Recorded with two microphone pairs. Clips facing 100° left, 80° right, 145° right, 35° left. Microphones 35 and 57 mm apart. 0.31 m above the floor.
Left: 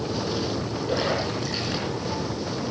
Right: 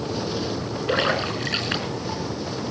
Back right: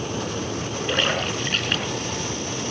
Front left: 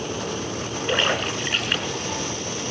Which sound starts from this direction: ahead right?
A splash, at 0.9 s.